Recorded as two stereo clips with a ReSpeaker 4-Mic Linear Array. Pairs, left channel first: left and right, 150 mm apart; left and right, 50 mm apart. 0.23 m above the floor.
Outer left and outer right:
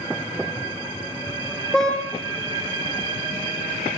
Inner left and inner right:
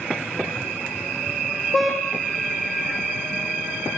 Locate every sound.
1.7 s a car horn: 5° left (ahead or behind), 5 m